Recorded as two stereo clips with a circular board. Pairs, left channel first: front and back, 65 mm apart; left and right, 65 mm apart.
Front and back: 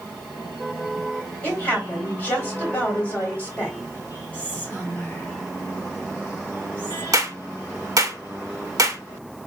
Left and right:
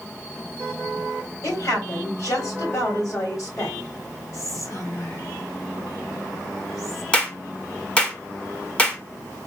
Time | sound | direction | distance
1.4 | a woman speaking | 60° left | 3 m
4.3 | whispering | 60° left | 2.5 m
7.1 | a clap | 160° left | 1.0 m